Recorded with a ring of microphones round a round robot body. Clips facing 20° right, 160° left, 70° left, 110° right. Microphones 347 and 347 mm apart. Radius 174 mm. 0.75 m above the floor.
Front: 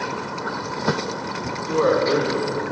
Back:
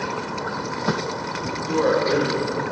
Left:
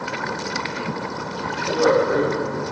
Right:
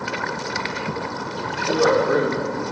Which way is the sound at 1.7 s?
100° right.